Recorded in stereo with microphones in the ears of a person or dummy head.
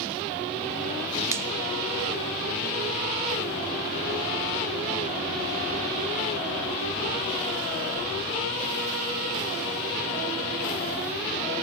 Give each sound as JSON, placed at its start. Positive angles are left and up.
{"t": 1.3, "sound": "a finger snap", "side_deg": -20, "distance_m": 0.6}